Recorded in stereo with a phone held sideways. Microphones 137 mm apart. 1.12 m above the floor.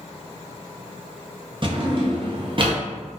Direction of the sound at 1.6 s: 40° right (ahead or behind).